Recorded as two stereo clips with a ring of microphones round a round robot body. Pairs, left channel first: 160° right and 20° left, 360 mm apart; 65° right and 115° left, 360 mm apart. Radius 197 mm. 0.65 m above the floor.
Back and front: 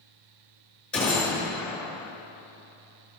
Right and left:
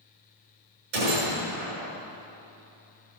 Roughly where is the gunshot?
Behind left.